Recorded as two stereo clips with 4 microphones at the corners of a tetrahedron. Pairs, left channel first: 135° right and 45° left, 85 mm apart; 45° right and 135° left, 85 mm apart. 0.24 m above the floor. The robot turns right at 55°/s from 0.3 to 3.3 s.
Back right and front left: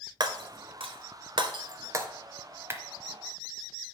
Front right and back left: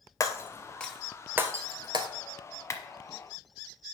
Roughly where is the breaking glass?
Ahead.